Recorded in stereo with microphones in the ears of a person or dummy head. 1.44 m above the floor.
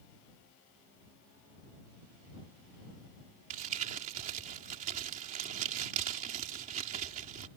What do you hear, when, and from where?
3.5 s crumpling: 45° right (ahead or behind)